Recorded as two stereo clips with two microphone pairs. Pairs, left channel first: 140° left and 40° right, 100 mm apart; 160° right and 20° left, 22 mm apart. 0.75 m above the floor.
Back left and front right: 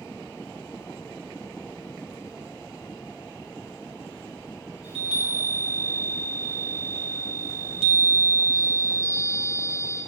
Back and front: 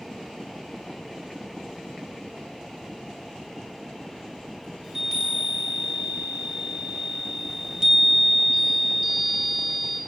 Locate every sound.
4.8 s a chime: 50° right, 1.1 m